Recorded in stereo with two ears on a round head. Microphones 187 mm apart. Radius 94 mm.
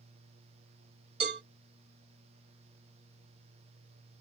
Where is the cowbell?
50° right (ahead or behind), 2 m.